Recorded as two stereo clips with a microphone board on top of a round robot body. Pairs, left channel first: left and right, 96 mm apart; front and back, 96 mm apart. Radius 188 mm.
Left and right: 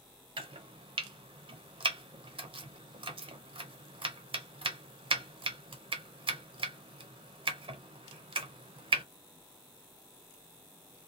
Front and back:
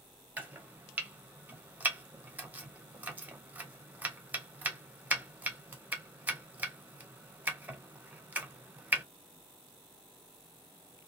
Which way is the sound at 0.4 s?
110° right.